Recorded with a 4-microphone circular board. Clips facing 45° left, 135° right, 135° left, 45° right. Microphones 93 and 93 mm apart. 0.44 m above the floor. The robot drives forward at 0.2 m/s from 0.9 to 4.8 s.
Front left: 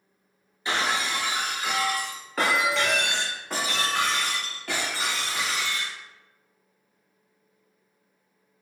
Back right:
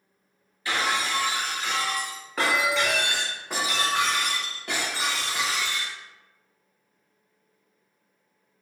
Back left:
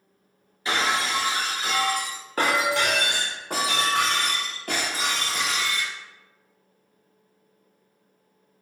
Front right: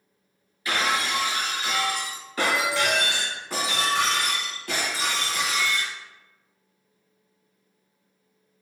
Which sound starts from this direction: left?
Breaking glass, at 0.7 s.